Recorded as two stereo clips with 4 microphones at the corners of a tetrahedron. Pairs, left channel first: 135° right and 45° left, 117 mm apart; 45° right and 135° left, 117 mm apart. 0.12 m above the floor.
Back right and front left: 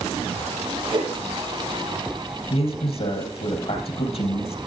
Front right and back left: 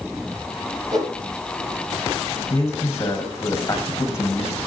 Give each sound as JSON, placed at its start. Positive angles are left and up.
{"t": 0.9, "sound": "a whoosh", "azimuth_deg": 80, "distance_m": 3.5}
{"t": 2.5, "sound": "a man speaking", "azimuth_deg": -110, "distance_m": 4.0}